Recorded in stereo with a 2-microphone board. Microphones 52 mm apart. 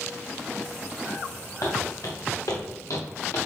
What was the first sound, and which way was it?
Footsteps, 80° left.